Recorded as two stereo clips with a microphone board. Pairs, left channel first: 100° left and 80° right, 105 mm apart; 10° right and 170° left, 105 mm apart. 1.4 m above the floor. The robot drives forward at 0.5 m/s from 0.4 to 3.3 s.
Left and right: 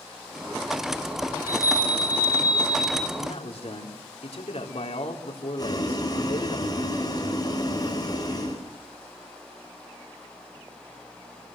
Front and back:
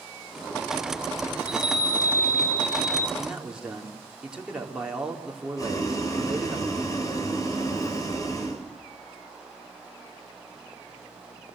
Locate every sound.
1.4 s a chime: 40° left, 3 m; by 3.1 s 55° left, 2.5 m
3.2 s a man speaking: 85° left, 4 m
5.6 s boiling: 45° left, 6 m